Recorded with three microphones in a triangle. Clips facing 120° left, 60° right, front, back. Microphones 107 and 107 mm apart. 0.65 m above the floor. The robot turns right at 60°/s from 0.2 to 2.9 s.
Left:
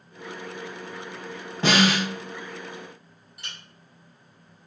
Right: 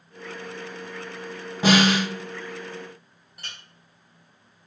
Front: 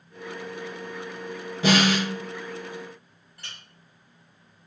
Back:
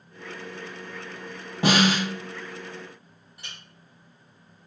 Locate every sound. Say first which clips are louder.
1.6 s a snare drum: right 2 dB, even; 145° right, 1.7 m; by 2.1 s 120° right, 1.7 m
3.4 s a clink: even, even; 105° right, 1.7 m